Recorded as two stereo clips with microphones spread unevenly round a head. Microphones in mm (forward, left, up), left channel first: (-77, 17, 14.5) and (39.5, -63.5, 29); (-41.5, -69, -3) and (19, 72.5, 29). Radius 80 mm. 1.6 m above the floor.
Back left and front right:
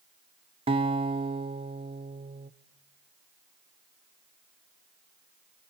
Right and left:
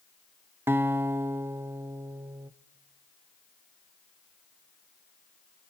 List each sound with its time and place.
0.7 s a guitar: 5° left, 0.7 m